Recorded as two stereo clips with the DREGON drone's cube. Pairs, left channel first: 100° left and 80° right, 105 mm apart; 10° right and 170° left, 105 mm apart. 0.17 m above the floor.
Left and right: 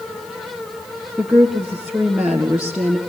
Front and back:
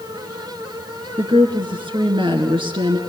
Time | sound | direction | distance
1.2 | a woman speaking | 165° right | 2.5 m